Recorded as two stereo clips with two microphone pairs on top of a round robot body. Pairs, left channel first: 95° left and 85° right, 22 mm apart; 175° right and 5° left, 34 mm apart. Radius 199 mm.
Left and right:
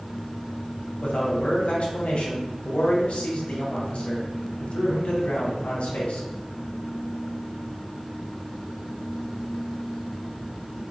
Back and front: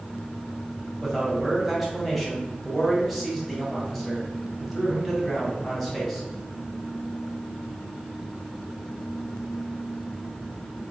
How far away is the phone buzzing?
No phone buzzing in this recording.